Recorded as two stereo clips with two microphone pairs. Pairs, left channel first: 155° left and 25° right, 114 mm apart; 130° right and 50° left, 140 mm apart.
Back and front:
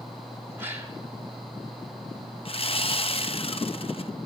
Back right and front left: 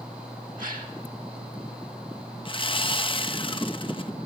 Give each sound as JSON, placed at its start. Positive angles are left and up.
{"t": 0.6, "sound": "a gasp", "azimuth_deg": 45, "distance_m": 1.7}
{"t": 2.5, "sound": "sawing", "azimuth_deg": -175, "distance_m": 0.5}